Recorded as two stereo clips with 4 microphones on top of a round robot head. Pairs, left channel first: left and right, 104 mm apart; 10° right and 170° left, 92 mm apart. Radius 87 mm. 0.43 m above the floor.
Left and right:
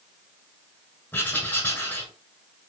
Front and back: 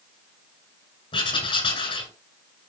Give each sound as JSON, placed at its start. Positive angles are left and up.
{"t": 1.1, "sound": "writing", "azimuth_deg": 15, "distance_m": 6.5}